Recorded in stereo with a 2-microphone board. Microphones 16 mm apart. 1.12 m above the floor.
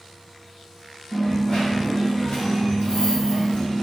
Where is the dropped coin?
70° left (ahead or behind), 1.7 m.